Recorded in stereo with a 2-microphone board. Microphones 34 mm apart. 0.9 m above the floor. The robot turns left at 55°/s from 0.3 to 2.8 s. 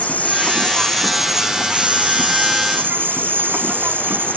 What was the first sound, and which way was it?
An insect, 50° left.